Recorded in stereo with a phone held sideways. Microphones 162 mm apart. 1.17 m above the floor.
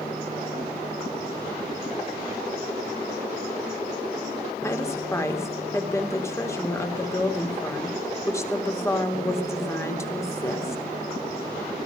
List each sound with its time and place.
4.6 s a woman speaking: 15° left (ahead or behind), 3.5 m